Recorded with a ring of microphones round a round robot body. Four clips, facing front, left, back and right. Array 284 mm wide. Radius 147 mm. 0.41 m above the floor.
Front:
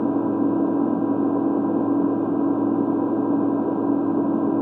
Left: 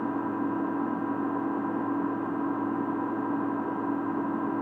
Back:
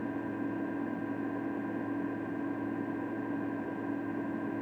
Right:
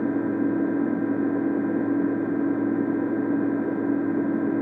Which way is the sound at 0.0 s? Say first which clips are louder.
Right 6 dB, front 15 dB; 25° right.